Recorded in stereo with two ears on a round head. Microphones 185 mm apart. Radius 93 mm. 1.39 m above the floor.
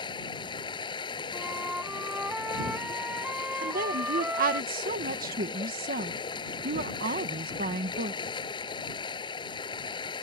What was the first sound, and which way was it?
Running water, 25° left (ahead or behind).